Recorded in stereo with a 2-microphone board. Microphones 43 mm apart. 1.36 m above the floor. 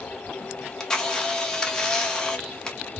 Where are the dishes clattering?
I don't hear dishes clattering.